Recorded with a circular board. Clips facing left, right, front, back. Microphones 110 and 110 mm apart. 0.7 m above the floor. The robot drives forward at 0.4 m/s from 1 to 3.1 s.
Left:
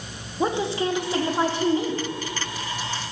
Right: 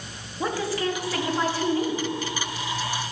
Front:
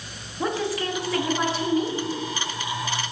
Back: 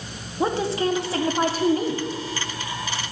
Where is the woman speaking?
135° left, 0.7 m; by 2.1 s 160° left, 0.9 m.